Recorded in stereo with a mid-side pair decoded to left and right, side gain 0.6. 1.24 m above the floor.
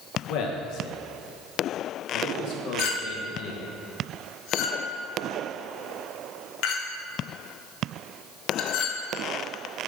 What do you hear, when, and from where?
0.3 s a man speaking: 70° left, 1.2 m
2.8 s a clink: 65° left, 0.7 m